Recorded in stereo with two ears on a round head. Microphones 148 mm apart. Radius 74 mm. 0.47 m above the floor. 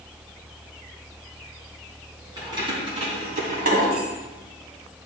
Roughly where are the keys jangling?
Right.